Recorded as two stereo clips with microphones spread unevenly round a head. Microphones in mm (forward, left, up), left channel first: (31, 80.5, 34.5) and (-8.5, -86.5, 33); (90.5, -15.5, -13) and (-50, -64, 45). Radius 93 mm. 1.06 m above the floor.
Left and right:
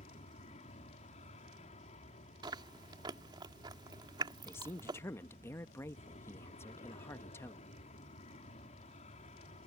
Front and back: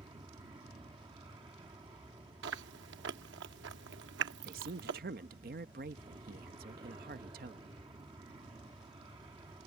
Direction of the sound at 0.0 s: 125° left.